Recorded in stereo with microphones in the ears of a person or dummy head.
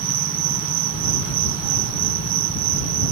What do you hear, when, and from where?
0.0 s an insect: 45° right (ahead or behind)